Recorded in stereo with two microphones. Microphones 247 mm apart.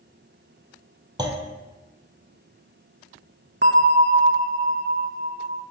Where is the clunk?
15° right (ahead or behind), 1.6 m.